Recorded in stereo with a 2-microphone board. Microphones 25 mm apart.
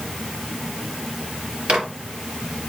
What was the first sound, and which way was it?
A microwave, 75° right (ahead or behind).